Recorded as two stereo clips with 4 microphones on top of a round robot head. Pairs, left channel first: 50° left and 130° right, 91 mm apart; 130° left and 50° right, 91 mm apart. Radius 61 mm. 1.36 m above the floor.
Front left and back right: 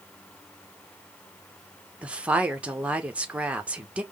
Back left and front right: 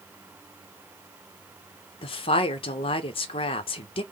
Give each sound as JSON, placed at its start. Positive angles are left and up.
{"t": 2.0, "sound": "a woman speaking", "azimuth_deg": 155, "distance_m": 0.7}